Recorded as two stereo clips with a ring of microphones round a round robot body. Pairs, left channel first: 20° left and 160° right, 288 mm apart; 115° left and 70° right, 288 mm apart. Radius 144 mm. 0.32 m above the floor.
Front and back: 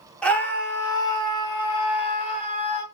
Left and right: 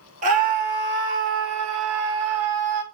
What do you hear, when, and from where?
0.2 s a scream: 60° right, 1.0 m; by 2.8 s 45° right, 1.9 m